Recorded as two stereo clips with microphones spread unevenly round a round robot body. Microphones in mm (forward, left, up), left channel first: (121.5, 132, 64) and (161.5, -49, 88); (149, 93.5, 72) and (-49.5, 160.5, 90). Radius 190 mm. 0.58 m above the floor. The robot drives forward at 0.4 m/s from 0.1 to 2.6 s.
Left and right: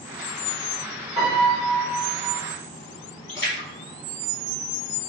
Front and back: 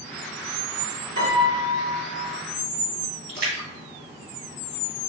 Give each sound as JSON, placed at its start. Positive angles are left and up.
{"t": 1.2, "sound": "a piano", "azimuth_deg": -175, "distance_m": 1.3}
{"t": 3.3, "sound": "a splash", "azimuth_deg": 165, "distance_m": 1.7}